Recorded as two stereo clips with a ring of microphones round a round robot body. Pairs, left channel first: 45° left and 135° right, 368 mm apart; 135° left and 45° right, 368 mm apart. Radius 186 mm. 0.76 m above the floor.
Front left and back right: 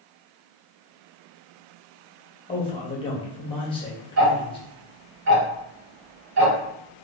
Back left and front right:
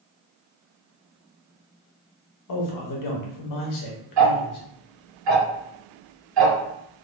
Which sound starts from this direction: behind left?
A man speaking, at 2.5 s.